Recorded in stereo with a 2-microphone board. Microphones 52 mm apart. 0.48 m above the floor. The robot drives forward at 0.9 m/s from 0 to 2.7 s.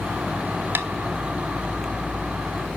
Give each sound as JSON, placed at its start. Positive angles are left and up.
{"t": 0.8, "sound": "tapping", "side_deg": -45, "distance_m": 1.5}